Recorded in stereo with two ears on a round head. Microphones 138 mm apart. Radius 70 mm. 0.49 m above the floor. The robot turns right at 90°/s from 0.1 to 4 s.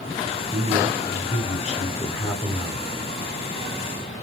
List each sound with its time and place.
0.5 s a man speaking: 10° right, 1.1 m; by 2.9 s 160° right, 1.1 m